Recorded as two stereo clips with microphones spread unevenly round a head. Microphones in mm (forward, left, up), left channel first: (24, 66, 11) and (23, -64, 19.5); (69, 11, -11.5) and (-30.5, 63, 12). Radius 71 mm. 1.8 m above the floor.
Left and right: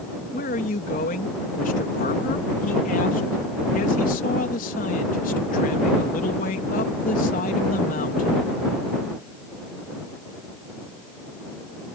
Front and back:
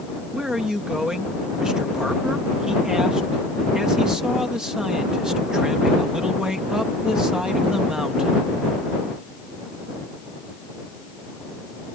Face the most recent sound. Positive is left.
turn(degrees=70)